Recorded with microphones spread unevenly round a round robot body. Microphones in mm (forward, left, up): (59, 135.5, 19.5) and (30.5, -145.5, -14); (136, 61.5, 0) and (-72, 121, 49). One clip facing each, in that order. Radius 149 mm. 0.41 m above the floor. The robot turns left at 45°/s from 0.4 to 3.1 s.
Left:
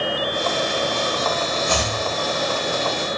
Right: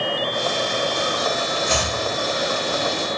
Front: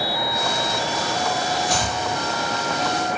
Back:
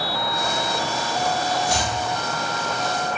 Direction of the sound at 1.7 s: 50° right.